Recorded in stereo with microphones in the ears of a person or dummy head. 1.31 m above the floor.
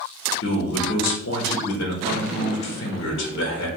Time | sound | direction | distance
0.4 | a man speaking | 70° left (ahead or behind) | 0.8 m